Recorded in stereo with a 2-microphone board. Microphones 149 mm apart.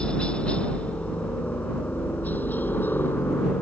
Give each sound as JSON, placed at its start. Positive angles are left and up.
{"t": 0.0, "sound": "a helicopter", "side_deg": 5}